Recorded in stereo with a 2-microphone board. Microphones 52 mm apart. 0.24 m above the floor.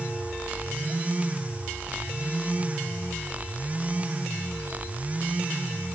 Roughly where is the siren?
No siren in this recording.